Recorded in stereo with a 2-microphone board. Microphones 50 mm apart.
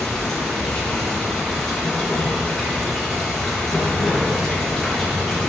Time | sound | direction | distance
0.0 | running water | 10° left (ahead or behind) | 4.5 m